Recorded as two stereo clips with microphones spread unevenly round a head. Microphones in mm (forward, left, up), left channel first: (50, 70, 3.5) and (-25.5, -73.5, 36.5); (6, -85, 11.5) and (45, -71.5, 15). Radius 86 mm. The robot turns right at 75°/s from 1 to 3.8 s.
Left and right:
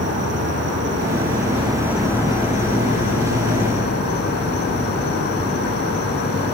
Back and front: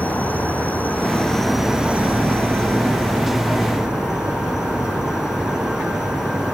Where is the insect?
110° right; by 6.5 s 100° left.